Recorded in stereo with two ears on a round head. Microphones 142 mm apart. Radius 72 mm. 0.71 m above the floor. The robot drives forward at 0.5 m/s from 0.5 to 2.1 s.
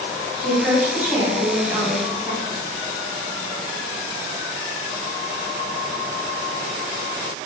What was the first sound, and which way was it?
A woman speaking, 10° right (ahead or behind).